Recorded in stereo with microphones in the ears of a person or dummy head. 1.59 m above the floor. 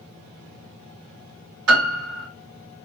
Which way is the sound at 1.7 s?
85° right.